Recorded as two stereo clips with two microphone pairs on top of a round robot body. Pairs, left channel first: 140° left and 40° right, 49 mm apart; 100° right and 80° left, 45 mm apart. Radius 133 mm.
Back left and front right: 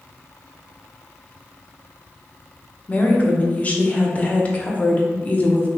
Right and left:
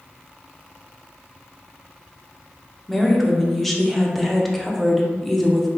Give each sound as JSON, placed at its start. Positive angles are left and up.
{"t": 2.9, "sound": "a woman speaking", "azimuth_deg": 180, "distance_m": 1.1}